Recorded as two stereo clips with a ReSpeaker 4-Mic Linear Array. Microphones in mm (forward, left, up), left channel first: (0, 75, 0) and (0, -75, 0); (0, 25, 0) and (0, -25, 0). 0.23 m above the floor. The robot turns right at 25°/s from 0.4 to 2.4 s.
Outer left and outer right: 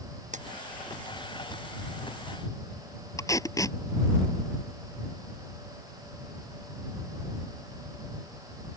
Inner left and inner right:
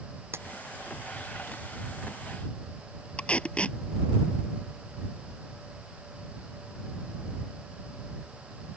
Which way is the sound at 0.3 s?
55° right (ahead or behind).